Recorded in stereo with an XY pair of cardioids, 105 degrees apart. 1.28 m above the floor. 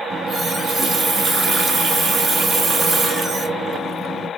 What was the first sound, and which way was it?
A running tap, 50° right.